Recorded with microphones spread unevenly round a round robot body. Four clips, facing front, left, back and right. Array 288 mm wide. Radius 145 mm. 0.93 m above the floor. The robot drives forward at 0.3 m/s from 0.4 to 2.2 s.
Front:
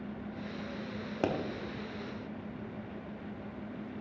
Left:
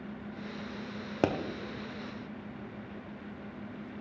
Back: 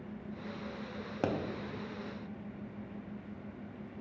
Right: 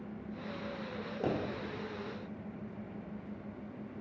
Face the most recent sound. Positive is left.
turn(degrees=105)